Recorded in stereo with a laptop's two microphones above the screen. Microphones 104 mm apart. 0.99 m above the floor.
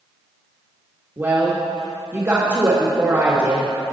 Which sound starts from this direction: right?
A woman speaking, at 1.2 s.